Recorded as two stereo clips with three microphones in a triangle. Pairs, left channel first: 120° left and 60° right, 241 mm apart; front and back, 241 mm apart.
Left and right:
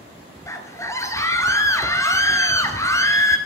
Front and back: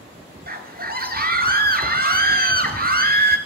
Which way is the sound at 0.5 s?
170° right.